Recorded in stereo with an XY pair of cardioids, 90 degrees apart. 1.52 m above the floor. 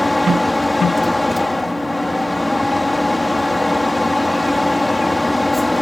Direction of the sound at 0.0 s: 15° left.